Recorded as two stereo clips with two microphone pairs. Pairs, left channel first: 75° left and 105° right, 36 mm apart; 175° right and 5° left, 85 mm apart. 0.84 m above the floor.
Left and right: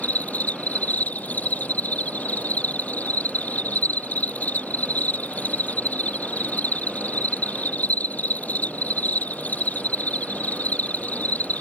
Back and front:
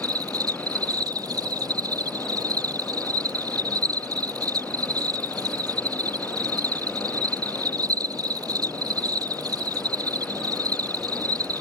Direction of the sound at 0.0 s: 40° left.